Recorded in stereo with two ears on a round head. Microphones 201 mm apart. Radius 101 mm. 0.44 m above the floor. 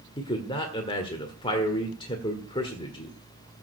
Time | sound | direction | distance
0.2 | a man speaking | 20° left (ahead or behind) | 1.5 m